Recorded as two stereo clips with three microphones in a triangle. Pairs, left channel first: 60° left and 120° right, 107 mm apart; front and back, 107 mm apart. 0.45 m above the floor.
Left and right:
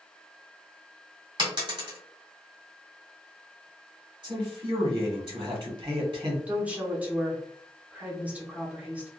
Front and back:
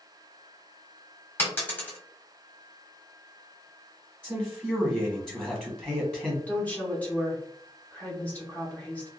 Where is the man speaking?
85° right, 1.2 m.